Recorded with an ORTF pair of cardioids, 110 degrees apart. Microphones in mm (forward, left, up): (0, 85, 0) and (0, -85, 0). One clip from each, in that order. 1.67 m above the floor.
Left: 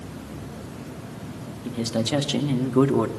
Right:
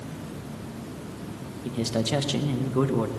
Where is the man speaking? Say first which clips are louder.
Left 1 dB; 5° right, 2.5 m; by 3.1 s 30° left, 1.8 m.